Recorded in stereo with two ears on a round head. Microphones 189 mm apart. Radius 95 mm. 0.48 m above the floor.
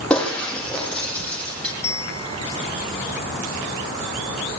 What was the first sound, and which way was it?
Breaking glass, 5° left (ahead or behind).